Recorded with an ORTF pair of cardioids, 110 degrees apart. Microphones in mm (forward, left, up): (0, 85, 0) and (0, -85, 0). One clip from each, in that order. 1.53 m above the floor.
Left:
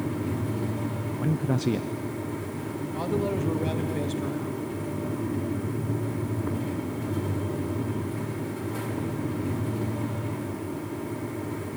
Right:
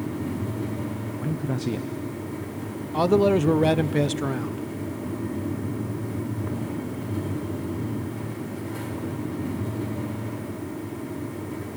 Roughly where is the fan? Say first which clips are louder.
Even; ahead.